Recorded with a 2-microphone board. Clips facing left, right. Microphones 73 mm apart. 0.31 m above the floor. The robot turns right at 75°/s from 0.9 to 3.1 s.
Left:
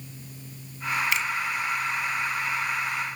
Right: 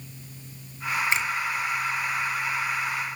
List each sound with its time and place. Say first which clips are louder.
1.1 s a finger snap: right 1 dB; 30° right (ahead or behind), 1.7 m; by 1.3 s 45° right (ahead or behind), 1.7 m